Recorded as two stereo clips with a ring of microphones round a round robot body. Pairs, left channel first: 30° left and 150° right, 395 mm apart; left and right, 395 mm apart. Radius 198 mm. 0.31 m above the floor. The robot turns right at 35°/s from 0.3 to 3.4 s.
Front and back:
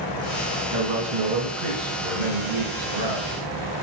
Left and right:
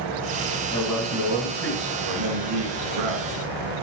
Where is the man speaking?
170° left, 3.5 m; by 3.3 s 100° right, 3.5 m.